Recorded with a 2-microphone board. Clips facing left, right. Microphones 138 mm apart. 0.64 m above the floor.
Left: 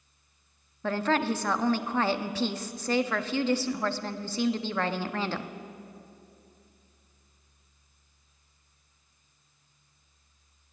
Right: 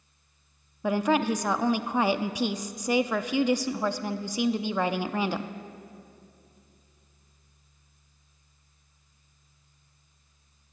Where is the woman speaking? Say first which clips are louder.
Right 3 dB; 15° right (ahead or behind), 0.5 m.